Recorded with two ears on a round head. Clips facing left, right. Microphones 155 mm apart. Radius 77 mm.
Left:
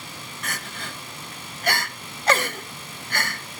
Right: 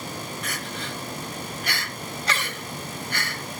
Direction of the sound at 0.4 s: 40° left (ahead or behind).